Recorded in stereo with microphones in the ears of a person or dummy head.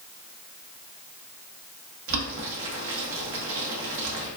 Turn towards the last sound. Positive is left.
turn(degrees=-75)  # may be behind; listen again after turning